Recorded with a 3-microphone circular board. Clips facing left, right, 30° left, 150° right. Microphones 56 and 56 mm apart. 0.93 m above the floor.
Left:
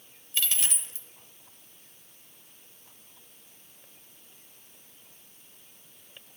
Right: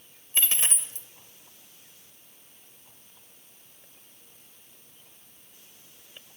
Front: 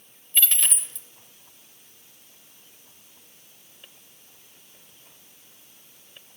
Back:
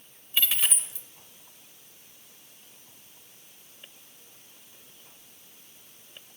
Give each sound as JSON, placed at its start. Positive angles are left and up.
{"t": 0.3, "sound": "a dropped coin", "azimuth_deg": -70, "distance_m": 0.7}